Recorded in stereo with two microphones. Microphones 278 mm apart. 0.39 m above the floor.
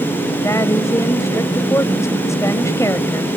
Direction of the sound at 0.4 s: 10° left (ahead or behind).